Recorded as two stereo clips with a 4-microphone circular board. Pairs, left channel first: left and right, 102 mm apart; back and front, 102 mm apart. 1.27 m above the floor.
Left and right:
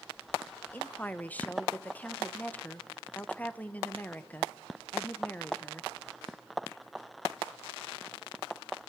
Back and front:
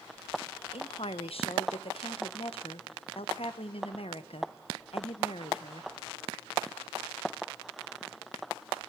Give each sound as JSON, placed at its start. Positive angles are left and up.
{"t": 0.7, "sound": "a woman speaking", "azimuth_deg": 165, "distance_m": 1.0}